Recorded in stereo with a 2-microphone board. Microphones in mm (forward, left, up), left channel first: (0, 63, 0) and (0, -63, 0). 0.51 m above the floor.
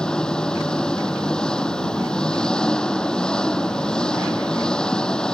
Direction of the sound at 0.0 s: 5° left (ahead or behind).